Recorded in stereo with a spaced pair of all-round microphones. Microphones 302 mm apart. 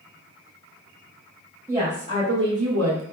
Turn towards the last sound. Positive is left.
turn(degrees=-55)  # may be behind; listen again after turning